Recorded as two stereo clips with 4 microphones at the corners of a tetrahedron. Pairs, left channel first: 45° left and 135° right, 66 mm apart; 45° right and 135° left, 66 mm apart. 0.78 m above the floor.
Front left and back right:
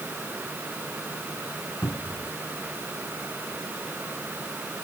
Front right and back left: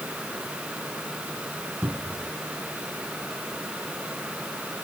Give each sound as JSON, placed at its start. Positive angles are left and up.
{"t": 1.8, "sound": "a cupboard door", "azimuth_deg": 85}